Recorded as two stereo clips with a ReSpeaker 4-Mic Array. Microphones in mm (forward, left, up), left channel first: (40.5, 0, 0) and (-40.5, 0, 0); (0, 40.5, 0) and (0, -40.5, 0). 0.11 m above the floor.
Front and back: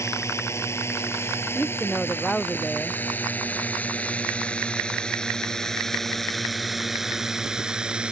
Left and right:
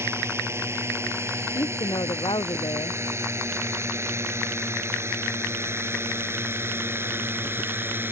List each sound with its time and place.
0.0 s a drone: 45° right; by 8.1 s 115° right
1.6 s a woman speaking: 80° left